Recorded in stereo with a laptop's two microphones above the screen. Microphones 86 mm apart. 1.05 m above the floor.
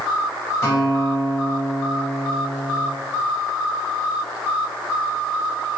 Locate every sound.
0.6 s a guitar: 35° left (ahead or behind), 5 m